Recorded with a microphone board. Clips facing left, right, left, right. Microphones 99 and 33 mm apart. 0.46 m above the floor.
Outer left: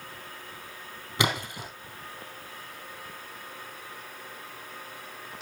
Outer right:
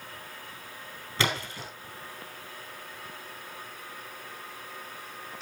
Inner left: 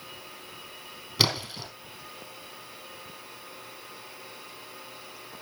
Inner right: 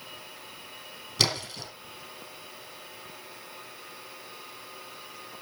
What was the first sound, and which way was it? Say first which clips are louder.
A splash: outer left 2 dB, inner left 1 dB; 15° left (ahead or behind).